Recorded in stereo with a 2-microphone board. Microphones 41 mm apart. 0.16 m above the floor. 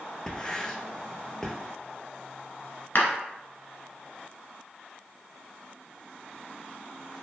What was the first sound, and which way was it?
Writing, 15° left (ahead or behind).